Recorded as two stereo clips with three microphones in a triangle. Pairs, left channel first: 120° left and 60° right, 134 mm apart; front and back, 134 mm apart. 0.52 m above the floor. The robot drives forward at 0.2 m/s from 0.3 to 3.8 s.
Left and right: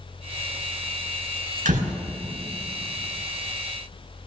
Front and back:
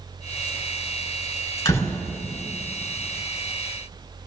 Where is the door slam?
65° right, 4 m.